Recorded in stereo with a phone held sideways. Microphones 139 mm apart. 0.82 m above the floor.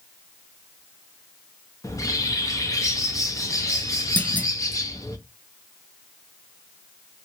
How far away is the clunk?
About 0.6 m.